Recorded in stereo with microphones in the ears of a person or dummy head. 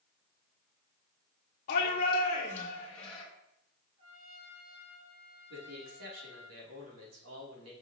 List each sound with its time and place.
1.7 s a shout: 45° left (ahead or behind), 1.1 m; by 3.2 s 5° left (ahead or behind), 2 m
4.0 s a trumpet: 40° right (ahead or behind), 1.7 m
5.5 s a man speaking: 85° right, 3 m